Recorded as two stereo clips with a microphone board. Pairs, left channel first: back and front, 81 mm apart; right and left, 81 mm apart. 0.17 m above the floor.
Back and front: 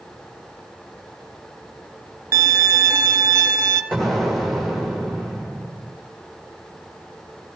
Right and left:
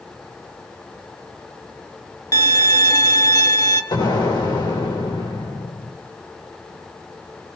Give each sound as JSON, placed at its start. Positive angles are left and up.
{"t": 2.3, "sound": "a violin", "azimuth_deg": -55, "distance_m": 1.5}
{"t": 3.9, "sound": "an explosion", "azimuth_deg": -90, "distance_m": 6.5}